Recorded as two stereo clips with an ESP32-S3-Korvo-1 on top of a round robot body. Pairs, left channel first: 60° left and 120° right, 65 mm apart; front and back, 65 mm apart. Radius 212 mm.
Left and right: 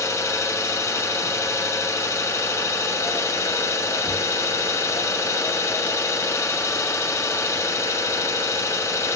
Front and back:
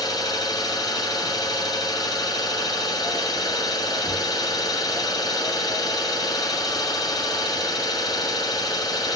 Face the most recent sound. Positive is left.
turn(degrees=15)